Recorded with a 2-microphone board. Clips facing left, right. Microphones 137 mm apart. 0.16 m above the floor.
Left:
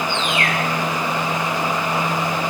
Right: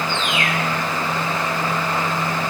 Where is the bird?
20° right (ahead or behind), 5.5 m.